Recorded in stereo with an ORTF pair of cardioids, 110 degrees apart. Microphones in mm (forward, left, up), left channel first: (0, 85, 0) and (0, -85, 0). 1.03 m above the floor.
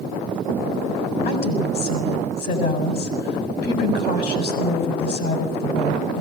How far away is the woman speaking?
About 7 m.